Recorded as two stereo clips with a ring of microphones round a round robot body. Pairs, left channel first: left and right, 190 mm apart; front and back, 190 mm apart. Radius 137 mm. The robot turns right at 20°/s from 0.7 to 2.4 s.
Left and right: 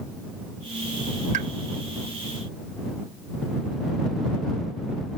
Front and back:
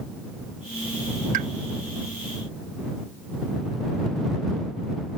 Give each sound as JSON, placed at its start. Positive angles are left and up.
{"t": 1.3, "sound": "a pop", "azimuth_deg": -140}